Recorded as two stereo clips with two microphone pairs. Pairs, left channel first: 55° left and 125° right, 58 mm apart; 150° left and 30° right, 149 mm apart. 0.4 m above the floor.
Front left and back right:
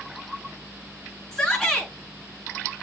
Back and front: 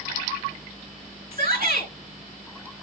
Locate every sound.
1.3 s a shout: 20° right, 6 m